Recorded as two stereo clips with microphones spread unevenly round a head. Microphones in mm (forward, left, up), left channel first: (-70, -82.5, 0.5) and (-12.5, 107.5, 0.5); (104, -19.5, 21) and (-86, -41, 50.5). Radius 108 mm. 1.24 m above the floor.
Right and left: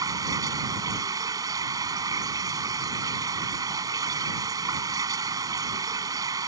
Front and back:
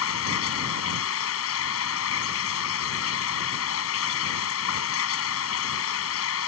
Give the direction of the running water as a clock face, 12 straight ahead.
12 o'clock.